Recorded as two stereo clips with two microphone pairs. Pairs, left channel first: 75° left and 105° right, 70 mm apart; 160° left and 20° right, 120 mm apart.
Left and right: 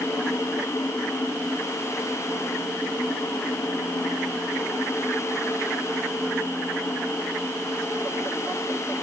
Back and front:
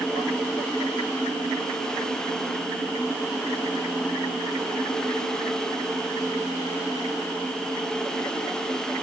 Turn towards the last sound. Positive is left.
No sound to turn to.